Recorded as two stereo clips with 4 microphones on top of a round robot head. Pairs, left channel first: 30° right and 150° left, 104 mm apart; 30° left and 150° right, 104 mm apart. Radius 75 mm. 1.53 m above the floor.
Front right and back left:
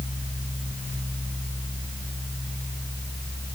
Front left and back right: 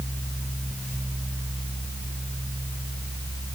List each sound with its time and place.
Only background noise.